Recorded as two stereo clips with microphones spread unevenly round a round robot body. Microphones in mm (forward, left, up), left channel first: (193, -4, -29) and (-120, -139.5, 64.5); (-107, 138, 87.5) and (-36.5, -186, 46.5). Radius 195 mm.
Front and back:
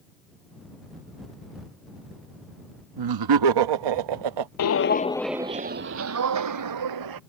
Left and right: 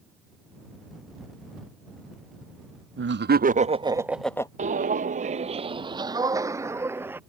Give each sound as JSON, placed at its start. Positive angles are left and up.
{"t": 3.0, "sound": "laughter", "azimuth_deg": -125}
{"t": 4.6, "sound": "footsteps", "azimuth_deg": -5}